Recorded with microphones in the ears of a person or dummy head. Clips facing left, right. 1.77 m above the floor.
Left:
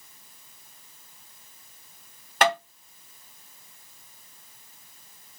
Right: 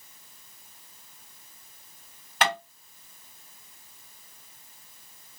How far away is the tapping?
About 1.5 m.